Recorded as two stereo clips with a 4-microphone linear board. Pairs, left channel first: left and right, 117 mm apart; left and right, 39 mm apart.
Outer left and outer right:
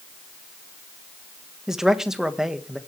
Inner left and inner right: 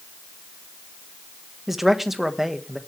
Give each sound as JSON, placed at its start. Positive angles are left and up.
{"t": 1.7, "sound": "a man speaking", "side_deg": -5, "distance_m": 1.3}